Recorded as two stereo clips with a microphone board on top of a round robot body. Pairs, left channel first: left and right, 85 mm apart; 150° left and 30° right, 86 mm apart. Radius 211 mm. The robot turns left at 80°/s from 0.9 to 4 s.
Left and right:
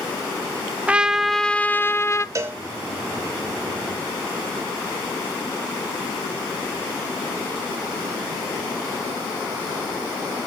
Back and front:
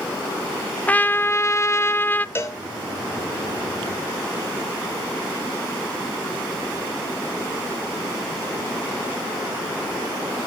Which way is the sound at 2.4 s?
145° right.